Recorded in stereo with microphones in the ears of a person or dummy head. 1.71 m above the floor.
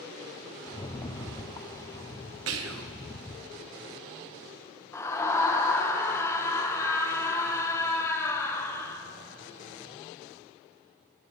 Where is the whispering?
80° right, 1.0 m.